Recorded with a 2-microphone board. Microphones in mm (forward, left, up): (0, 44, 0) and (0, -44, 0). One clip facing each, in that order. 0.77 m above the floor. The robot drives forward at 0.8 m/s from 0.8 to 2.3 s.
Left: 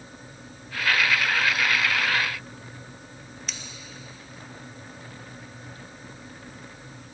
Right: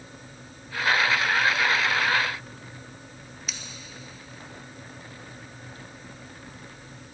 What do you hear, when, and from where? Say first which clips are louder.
3.5 s scissors: even; 5° right (ahead or behind), 1.0 m